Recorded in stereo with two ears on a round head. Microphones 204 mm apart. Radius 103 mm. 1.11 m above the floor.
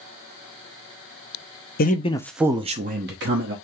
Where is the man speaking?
40° left (ahead or behind), 0.6 m; by 3.5 s 60° right (ahead or behind), 1.0 m.